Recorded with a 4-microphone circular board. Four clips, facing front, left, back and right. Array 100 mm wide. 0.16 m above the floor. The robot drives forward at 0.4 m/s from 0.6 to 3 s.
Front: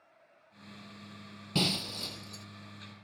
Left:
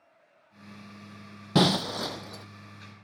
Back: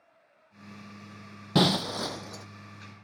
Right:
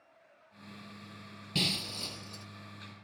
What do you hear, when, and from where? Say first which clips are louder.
1.6 s breaking glass: left 14 dB, back 9 dB; 130° left, 0.6 m; by 2.5 s 150° left, 0.9 m